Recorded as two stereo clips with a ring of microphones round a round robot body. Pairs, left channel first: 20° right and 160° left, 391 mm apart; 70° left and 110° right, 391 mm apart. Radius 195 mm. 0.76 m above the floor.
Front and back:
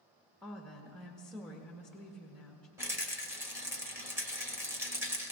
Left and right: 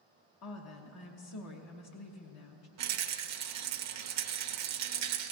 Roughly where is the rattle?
Behind right.